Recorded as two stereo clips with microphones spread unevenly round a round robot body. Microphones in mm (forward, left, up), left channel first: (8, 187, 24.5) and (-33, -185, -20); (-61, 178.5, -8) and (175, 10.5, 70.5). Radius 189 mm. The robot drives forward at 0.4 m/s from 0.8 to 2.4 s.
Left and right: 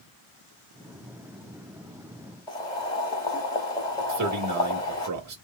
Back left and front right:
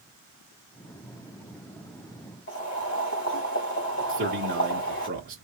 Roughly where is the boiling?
Behind.